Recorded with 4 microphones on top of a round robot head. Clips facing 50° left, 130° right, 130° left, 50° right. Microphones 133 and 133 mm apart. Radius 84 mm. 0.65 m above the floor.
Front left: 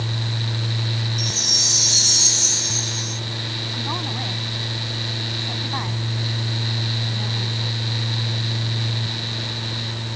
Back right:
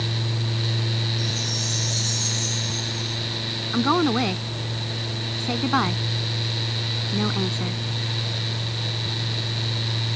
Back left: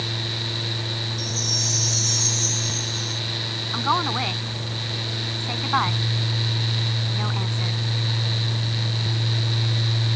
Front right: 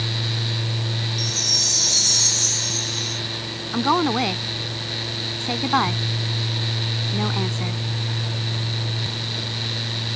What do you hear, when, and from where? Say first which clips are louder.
1.2 s a chime: back right 1 dB, even; 15° left
3.7 s a woman speaking: back right 11 dB, front right 5 dB; 100° right